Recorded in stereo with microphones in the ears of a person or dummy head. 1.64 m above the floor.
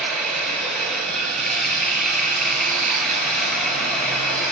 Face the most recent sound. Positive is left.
turn(degrees=10)  # may be behind; listen again after turning